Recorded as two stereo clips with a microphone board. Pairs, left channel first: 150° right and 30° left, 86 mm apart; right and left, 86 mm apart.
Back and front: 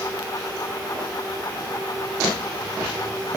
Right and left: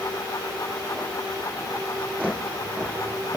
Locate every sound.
Only background noise.